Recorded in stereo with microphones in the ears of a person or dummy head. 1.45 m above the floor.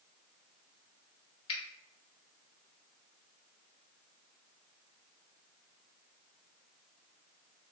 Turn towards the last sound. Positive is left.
turn(degrees=25)  # may be behind; listen again after turning